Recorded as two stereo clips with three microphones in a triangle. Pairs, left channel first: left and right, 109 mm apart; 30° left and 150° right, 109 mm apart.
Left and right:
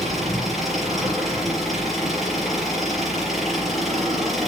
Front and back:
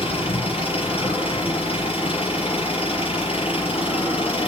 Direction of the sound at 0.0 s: Straight ahead.